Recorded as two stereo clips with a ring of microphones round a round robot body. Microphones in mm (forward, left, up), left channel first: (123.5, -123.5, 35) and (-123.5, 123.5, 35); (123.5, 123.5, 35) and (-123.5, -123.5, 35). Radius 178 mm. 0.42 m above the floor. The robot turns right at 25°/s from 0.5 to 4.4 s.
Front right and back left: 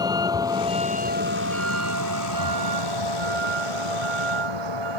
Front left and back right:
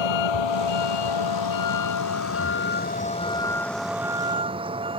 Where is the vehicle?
55° left; by 5.0 s 150° left.